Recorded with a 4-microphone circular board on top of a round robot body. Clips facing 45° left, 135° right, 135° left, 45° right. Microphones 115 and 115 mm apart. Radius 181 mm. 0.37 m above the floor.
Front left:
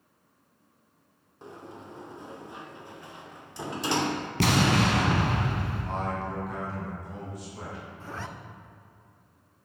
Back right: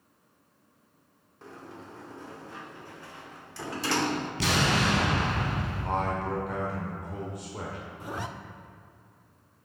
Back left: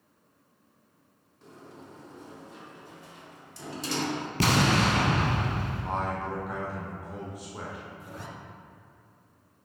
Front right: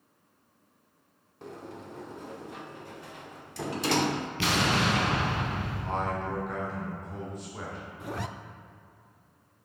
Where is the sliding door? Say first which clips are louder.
Front left 1 dB, front right 6 dB; 25° right, 0.6 m.